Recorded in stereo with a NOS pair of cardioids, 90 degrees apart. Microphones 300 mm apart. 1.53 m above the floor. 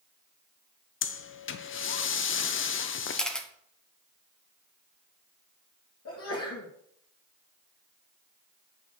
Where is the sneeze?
50° left, 2 m.